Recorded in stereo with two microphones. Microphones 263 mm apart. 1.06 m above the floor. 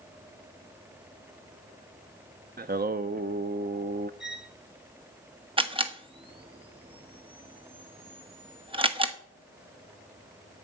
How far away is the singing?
About 0.5 m.